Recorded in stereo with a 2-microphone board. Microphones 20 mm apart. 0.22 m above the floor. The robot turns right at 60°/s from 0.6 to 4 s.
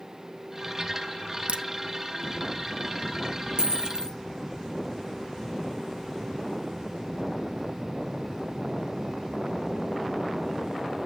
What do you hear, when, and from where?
1.5 s a crack: 75° right (ahead or behind), 0.7 m; by 1.6 s 80° right, 0.7 m
3.6 s a dropped coin: 60° right (ahead or behind), 1.3 m; by 4.2 s 45° right (ahead or behind), 1.3 m